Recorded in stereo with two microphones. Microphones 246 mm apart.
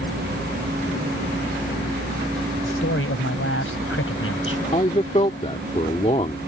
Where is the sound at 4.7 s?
25° left (ahead or behind).